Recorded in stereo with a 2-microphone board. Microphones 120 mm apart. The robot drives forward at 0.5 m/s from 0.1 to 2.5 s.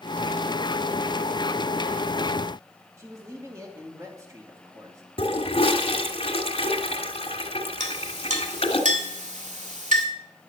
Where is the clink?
75° right (ahead or behind), 1.9 m.